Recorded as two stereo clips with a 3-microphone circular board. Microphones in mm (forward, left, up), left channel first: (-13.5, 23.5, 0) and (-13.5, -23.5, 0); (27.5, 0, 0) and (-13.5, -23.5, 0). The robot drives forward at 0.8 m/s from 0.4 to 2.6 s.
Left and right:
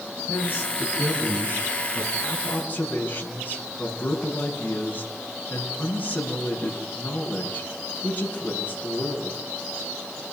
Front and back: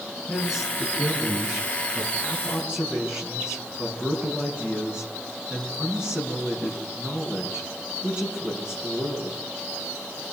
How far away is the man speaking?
About 7 m.